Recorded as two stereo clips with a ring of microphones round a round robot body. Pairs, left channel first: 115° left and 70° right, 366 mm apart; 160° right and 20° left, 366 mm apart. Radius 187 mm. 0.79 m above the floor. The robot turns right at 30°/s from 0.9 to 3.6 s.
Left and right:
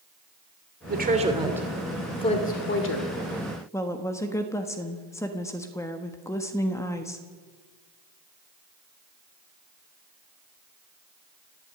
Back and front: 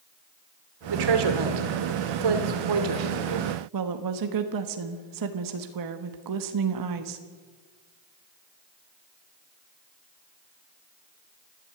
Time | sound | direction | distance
0.9 | a woman speaking | 5° right | 2.5 m
3.7 | a woman speaking | 30° left | 1.4 m